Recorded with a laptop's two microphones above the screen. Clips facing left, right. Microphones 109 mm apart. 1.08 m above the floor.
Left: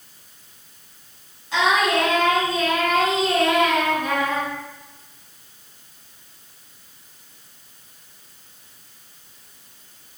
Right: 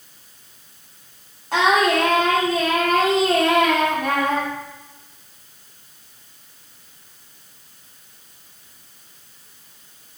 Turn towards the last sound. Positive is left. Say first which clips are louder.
# right 2 dB
turn(degrees=-50)  # may be behind; listen again after turning